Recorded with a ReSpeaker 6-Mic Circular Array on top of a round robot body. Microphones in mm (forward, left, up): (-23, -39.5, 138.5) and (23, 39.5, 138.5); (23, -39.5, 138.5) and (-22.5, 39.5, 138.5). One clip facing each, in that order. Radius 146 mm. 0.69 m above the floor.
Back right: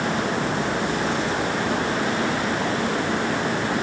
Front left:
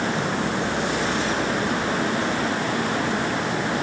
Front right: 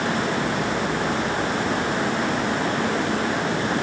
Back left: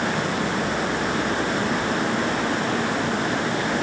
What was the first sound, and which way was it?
Only background noise.